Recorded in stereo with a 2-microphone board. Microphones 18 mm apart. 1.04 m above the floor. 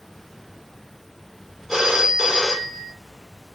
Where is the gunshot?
I don't hear a gunshot.